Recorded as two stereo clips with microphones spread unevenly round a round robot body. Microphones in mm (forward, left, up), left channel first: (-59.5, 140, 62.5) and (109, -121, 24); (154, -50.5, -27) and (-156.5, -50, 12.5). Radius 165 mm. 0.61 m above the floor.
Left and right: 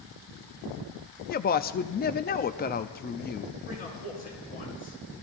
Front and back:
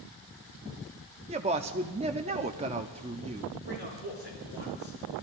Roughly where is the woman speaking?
Behind left.